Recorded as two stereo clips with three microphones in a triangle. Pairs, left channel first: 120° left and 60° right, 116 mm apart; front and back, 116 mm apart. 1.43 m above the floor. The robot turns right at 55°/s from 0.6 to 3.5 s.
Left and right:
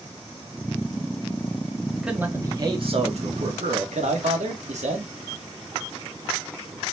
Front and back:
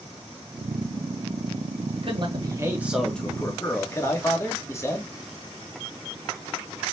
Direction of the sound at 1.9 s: 150° right.